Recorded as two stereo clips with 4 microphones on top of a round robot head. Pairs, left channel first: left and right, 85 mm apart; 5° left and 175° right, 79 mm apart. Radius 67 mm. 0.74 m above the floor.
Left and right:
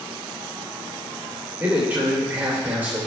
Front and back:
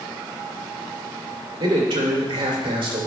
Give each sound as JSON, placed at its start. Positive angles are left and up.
{"t": 1.6, "sound": "a man speaking", "azimuth_deg": -160, "distance_m": 2.5}